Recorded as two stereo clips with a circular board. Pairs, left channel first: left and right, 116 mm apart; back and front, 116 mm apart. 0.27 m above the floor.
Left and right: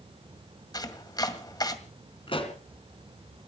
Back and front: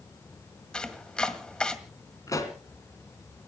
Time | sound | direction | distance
0.7 | chopping | 100° left | 1.9 m
2.3 | a pop | 120° left | 3 m